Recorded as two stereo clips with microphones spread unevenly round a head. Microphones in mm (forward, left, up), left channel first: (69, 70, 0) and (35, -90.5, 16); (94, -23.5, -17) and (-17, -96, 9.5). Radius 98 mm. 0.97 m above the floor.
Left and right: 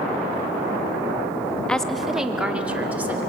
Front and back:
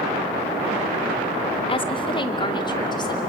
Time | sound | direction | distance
1.7 | a woman speaking | 5° right | 1.6 m